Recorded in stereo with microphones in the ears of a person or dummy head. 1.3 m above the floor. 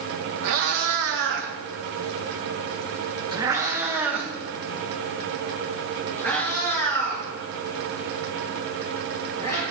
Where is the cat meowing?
70° right (ahead or behind), 1.3 m; by 9.6 s 15° left (ahead or behind), 4 m.